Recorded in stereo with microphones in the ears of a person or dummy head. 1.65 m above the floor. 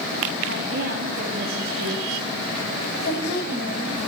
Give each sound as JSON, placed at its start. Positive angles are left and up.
{"t": 0.5, "sound": "a woman speaking", "side_deg": -65, "distance_m": 3.0}
{"t": 3.0, "sound": "a woman speaking", "side_deg": 65, "distance_m": 8.0}